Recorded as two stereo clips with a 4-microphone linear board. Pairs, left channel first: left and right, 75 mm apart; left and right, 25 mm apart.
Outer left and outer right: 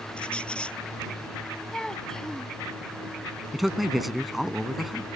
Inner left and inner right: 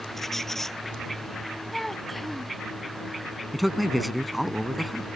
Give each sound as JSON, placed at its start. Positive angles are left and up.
{"t": 0.2, "sound": "a squeak", "side_deg": 15}
{"t": 1.7, "sound": "a child speaking", "side_deg": 10}
{"t": 3.5, "sound": "a man speaking", "side_deg": -5}